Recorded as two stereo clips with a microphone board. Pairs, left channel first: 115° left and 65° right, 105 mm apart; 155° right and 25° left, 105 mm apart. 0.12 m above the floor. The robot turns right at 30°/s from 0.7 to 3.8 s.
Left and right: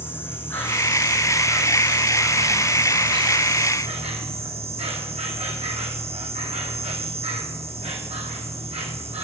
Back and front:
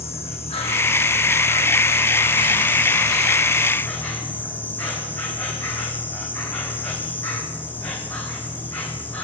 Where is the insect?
175° right, 0.8 m; by 9.2 s 85° right, 0.8 m.